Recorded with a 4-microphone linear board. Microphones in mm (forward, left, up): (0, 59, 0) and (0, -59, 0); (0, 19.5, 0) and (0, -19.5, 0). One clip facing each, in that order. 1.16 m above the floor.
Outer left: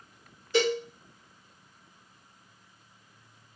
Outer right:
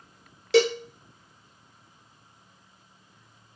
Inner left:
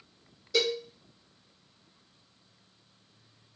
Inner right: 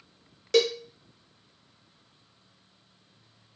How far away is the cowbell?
About 0.8 m.